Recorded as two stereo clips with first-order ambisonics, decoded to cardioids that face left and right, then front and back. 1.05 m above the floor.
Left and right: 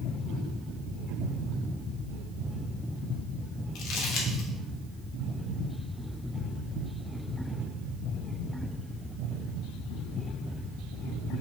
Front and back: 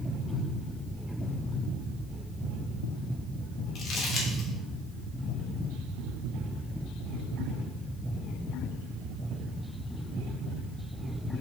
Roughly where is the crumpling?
Ahead left.